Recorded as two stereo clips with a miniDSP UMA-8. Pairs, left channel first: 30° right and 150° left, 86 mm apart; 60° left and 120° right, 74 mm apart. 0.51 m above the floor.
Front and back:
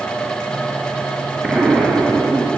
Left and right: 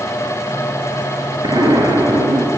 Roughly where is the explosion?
Behind right.